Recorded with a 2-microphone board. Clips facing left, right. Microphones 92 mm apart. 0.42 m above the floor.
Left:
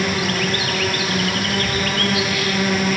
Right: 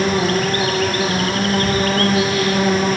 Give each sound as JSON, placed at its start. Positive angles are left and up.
{"t": 0.0, "sound": "an insect", "side_deg": -35, "distance_m": 7.5}